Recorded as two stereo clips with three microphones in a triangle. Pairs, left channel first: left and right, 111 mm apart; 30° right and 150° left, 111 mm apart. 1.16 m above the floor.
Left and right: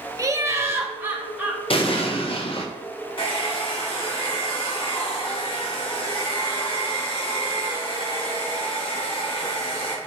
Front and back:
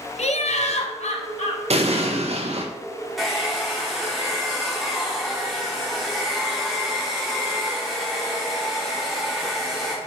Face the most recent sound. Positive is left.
turn(degrees=60)